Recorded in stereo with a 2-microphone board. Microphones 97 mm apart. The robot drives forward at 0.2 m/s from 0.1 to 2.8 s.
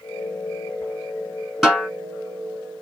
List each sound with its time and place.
1.6 s a snare drum: 5° right (ahead or behind), 1.2 m